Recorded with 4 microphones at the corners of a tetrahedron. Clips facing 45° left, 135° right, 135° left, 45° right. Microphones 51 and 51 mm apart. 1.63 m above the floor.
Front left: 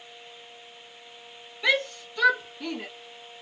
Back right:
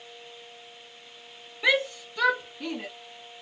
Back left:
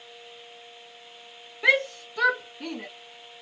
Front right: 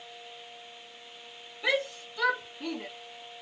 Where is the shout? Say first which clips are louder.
Back right 1 dB, back left 7 dB; 150° left, 1.3 m; by 2.9 s 145° left, 2 m.